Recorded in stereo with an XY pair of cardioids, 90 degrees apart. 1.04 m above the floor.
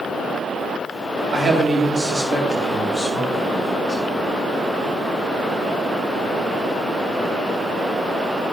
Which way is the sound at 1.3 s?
50° right.